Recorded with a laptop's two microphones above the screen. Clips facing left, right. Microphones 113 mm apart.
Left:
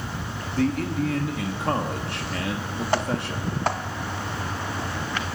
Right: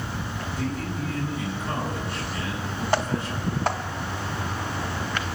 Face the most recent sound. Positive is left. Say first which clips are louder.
# left 8 dB
turn(degrees=70)  # may be behind; listen again after turning